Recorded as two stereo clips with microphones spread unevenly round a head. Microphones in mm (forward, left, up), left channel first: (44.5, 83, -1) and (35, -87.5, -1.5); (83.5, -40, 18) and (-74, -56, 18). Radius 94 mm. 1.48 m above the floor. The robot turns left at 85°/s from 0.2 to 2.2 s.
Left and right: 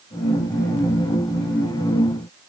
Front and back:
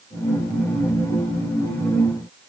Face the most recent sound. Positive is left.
No sound to turn to.